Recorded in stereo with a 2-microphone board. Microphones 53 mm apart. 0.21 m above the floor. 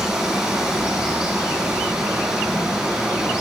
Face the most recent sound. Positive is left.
turn(degrees=-20)  # may be behind; listen again after turning